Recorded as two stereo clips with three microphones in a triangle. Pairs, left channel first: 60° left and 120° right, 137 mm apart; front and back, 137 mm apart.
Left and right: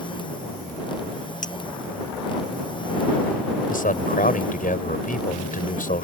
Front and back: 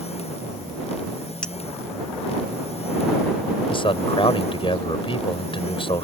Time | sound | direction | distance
1.4 | a clink | 85° left | ?
3.7 | a man speaking | 50° left | ?